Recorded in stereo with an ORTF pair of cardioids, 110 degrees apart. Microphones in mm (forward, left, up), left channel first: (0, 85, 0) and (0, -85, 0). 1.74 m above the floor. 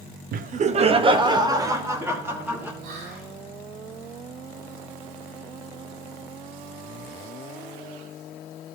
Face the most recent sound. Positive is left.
turn(degrees=-70)